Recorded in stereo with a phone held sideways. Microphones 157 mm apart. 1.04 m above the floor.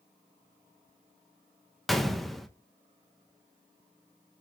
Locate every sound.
1.9 s a gunshot: centre (ahead or behind), 0.8 m